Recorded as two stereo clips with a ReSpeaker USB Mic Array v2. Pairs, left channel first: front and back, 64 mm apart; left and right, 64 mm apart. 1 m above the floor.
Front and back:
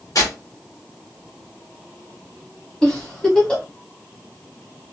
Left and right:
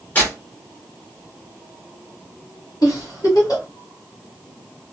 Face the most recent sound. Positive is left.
turn(degrees=75)